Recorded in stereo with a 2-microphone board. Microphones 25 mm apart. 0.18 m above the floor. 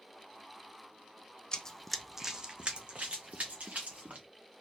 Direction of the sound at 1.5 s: 30° left (ahead or behind).